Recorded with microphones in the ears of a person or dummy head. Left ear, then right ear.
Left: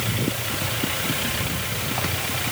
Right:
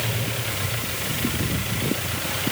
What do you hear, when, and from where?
Only background noise.